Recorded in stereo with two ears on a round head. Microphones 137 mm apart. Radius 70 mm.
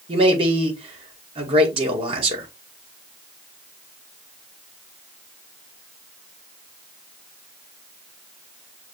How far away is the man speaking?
About 1.4 m.